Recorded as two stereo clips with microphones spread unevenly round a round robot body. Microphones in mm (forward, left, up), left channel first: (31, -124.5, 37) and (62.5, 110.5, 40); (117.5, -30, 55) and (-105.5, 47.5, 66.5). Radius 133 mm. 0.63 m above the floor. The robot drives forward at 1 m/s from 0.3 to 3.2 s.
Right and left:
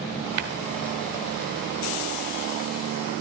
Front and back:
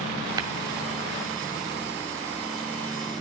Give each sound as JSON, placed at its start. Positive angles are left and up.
{"t": 0.4, "sound": "tapping", "azimuth_deg": 85, "distance_m": 1.5}